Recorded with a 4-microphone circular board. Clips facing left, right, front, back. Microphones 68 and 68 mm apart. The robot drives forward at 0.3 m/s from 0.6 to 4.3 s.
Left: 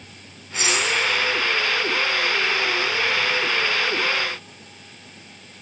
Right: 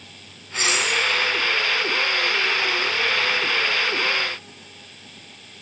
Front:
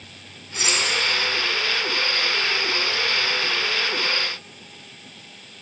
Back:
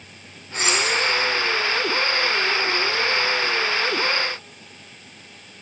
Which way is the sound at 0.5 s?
135° right.